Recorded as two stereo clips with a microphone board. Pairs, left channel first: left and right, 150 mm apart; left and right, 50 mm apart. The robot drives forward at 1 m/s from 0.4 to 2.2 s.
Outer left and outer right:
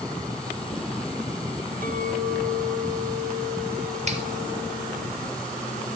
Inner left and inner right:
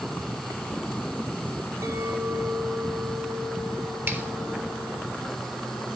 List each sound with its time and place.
1.8 s a clink: 65° right (ahead or behind), 4 m; by 5.1 s 70° right (ahead or behind), 4 m
4.1 s a finger snap: 50° right (ahead or behind), 4.5 m